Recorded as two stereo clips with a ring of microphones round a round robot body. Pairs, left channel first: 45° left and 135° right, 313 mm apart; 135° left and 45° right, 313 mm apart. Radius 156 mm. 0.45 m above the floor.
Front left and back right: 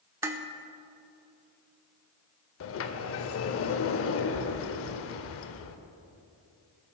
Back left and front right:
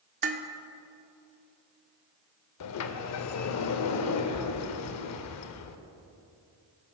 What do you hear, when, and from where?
0.2 s dishes clattering: 65° right, 0.5 m
2.6 s a sliding door: 95° left, 0.5 m